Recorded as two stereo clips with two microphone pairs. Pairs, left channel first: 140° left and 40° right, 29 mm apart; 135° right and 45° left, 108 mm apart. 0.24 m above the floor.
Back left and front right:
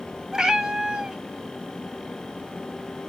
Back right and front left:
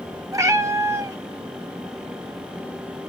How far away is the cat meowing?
About 0.7 m.